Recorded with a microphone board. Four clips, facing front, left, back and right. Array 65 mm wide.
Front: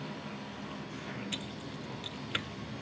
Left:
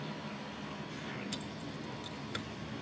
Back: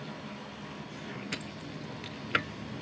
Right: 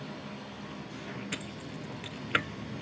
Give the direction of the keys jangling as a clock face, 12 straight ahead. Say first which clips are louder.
Right 2 dB, back 1 dB; 4 o'clock.